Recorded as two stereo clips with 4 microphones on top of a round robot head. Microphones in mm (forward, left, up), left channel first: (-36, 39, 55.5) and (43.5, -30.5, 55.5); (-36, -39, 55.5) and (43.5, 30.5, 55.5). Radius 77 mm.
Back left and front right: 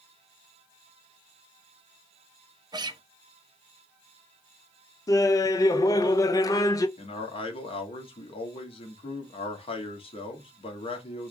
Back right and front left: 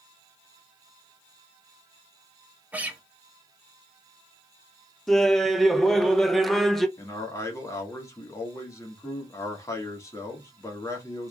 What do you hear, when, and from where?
2.7 s a guitar: 30° right, 0.7 m
5.1 s laughter: 135° left, 0.7 m
7.0 s a man speaking: 160° left, 1.4 m